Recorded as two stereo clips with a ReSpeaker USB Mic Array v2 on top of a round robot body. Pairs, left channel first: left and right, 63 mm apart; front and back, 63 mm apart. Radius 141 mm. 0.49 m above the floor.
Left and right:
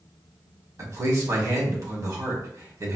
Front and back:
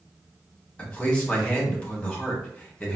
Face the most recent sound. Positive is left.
turn(degrees=-70)